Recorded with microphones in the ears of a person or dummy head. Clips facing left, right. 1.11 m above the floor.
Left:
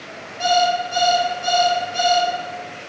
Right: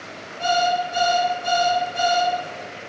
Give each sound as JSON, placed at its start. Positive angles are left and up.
{"t": 0.4, "sound": "an alarm clock", "side_deg": 60, "distance_m": 0.8}